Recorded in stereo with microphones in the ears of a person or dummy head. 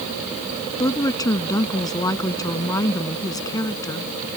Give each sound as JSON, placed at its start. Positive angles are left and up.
{"t": 0.8, "sound": "a woman speaking", "side_deg": 20}